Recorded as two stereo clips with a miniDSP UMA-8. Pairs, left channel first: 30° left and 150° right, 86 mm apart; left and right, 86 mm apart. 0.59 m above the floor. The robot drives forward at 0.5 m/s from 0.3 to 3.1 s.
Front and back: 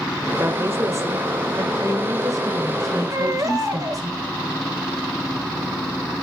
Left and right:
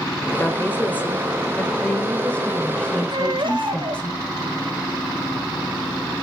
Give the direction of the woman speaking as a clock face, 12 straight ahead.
7 o'clock.